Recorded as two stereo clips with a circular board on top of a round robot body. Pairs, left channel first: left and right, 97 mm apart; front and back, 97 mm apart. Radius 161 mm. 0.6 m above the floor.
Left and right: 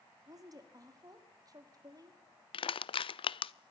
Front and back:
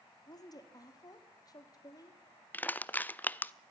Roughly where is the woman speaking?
Ahead right.